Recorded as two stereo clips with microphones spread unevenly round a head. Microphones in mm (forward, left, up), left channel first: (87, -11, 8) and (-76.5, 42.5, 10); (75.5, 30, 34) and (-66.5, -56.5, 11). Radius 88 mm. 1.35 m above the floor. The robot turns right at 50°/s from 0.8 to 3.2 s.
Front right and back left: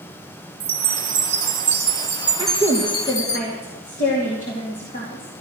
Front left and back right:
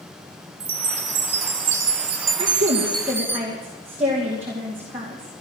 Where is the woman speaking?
110° right, 2.5 m; by 5.3 s 70° right, 2.5 m.